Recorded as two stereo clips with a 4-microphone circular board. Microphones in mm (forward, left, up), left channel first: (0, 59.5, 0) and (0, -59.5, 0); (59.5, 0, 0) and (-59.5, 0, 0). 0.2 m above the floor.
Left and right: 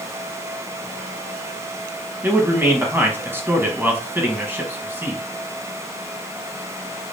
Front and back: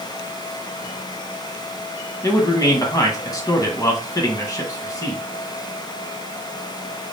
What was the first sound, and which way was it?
A man speaking, 30° right.